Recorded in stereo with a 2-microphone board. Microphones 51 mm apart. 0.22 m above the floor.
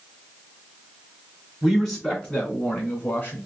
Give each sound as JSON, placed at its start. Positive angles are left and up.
{"t": 1.6, "sound": "a man speaking", "side_deg": 10, "distance_m": 2.0}